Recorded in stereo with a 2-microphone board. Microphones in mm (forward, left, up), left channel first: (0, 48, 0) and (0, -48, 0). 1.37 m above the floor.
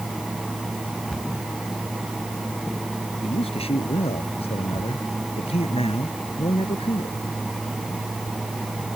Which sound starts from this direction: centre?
A cupboard door, at 1.1 s.